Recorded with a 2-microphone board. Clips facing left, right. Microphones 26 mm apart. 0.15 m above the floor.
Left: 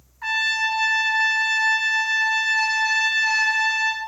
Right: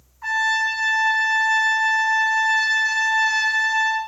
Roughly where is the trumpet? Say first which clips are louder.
Right 1 dB; left.